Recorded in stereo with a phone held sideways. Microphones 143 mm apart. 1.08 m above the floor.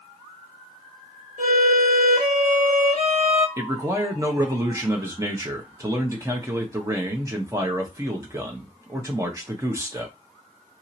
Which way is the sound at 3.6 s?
20° right (ahead or behind).